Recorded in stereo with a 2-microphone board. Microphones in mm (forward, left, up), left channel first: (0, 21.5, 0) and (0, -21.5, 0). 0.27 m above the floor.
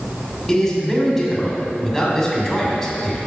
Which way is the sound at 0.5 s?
5° left (ahead or behind).